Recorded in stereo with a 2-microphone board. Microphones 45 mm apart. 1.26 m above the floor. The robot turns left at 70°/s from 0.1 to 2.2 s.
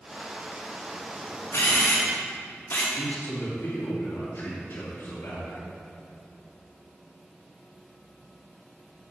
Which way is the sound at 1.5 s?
75° left (ahead or behind).